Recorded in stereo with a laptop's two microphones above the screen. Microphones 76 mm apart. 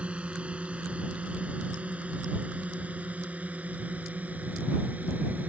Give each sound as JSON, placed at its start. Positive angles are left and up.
{"t": 0.0, "sound": "a drone", "side_deg": -15}